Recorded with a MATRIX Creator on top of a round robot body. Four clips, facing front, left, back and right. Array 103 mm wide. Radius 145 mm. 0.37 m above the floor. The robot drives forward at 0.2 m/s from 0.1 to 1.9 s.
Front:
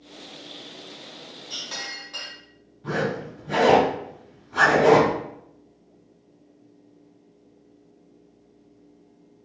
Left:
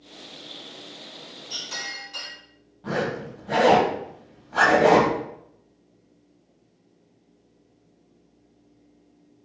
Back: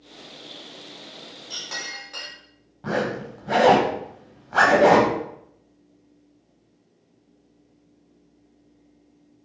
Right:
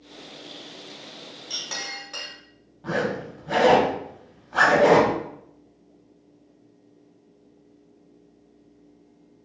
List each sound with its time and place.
1.5 s a clink: 110° right, 1.0 m; by 2.3 s 115° right, 1.1 m
2.8 s a zipper: 170° right, 0.5 m